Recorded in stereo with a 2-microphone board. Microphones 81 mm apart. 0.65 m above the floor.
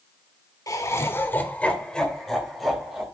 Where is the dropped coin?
No dropped coin in this recording.